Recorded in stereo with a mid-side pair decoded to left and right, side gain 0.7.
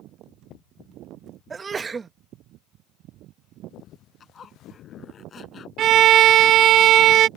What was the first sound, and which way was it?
A sneeze, 25° right.